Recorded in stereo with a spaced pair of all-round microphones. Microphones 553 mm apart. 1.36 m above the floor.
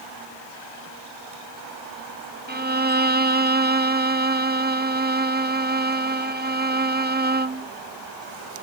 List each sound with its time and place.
2.5 s a violin: 20° right (ahead or behind), 0.5 m